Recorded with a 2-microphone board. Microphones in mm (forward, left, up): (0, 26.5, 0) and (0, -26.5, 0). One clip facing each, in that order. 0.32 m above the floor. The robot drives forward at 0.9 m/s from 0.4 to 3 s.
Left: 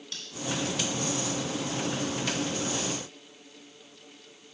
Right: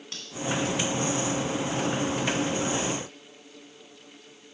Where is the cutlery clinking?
40° right (ahead or behind), 1.9 m.